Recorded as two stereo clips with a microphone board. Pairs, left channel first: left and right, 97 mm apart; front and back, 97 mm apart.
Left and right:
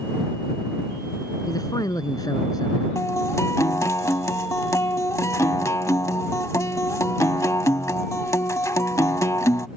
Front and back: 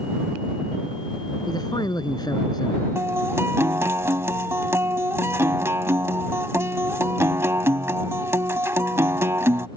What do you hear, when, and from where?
1.5 s a man speaking: 45° left
3.0 s a guitar: 130° left